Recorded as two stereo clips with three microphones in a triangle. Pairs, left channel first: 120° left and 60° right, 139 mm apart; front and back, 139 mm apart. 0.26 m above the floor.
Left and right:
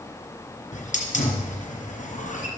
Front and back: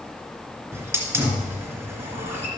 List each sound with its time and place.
0.7 s a hiss: 110° left, 2.5 m